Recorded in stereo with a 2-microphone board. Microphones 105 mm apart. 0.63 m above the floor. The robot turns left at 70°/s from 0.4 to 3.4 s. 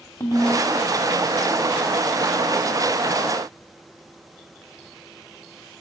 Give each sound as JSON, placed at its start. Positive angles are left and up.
{"t": 0.2, "sound": "a ringtone", "side_deg": 35, "distance_m": 1.9}